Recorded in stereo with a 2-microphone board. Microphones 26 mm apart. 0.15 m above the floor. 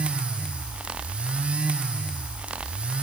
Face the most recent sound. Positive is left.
No sound to turn to.